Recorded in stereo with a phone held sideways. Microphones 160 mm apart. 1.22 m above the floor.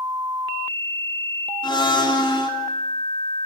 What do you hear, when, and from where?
1.6 s a blender: 30° left (ahead or behind), 3 m